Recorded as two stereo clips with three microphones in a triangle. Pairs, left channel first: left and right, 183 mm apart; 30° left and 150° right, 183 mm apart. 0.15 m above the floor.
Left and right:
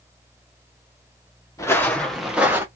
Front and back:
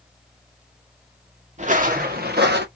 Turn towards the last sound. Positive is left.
turn(degrees=-165)